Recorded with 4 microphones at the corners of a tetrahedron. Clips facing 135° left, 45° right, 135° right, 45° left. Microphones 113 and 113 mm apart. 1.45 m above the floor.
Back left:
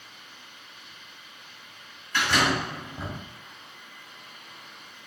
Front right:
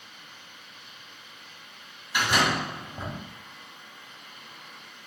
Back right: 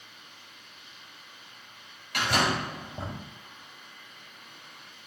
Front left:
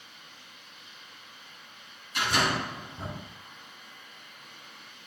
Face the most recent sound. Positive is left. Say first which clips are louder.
# even, back right 1 dB
turn(degrees=-120)